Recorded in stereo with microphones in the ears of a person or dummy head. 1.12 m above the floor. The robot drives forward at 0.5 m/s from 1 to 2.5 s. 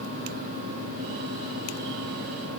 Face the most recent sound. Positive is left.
No sound to turn to.